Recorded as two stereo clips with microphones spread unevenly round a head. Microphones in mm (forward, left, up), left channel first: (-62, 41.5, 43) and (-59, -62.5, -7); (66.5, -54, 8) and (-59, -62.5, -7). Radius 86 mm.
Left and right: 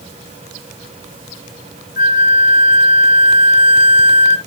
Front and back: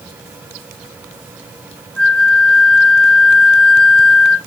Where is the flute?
90° left, 0.9 m.